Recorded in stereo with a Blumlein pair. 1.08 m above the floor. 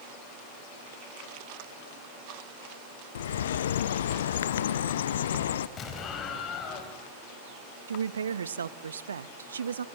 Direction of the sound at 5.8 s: 30° left.